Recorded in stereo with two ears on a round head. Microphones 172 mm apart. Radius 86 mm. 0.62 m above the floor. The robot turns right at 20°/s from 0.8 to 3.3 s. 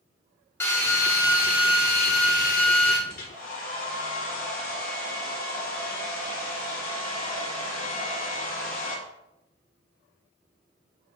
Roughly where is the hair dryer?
Left.